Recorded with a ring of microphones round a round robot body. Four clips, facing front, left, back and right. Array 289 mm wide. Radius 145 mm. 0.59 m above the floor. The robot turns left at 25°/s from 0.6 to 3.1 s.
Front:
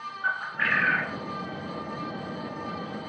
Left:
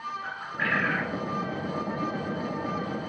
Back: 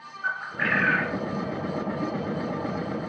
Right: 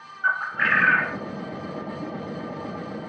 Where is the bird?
85° right, 1.0 m; by 1.2 s 100° right, 1.0 m.